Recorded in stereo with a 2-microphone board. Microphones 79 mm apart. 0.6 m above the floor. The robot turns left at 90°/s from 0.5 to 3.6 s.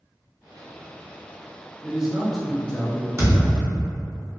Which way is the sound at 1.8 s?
15° right (ahead or behind).